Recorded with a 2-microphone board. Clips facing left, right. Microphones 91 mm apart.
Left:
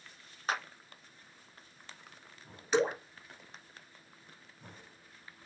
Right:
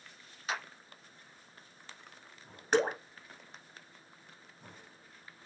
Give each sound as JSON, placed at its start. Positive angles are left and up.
{"t": 0.5, "sound": "a clap", "side_deg": 45, "distance_m": 1.5}
{"t": 2.7, "sound": "dripping", "side_deg": -55, "distance_m": 2.0}